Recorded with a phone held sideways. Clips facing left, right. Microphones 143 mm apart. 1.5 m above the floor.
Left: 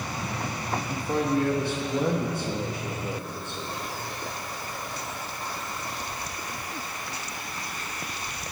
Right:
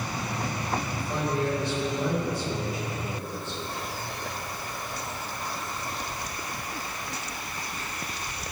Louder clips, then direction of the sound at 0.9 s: Left 4 dB; 60° left (ahead or behind).